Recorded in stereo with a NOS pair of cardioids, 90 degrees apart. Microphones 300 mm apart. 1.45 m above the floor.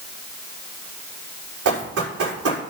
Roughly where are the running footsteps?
Ahead right.